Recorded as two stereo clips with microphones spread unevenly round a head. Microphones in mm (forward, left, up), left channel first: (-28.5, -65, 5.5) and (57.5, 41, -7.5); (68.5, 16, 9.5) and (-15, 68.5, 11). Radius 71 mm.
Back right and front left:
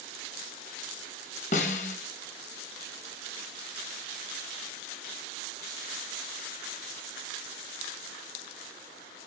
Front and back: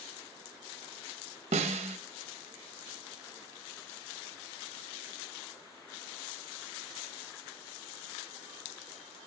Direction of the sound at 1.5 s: 175° right.